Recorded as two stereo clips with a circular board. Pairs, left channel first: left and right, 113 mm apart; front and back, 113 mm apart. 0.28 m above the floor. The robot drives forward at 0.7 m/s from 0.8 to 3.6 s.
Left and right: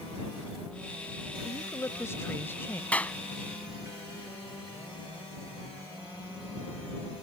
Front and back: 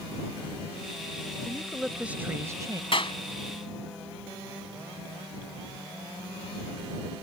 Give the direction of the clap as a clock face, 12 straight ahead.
11 o'clock.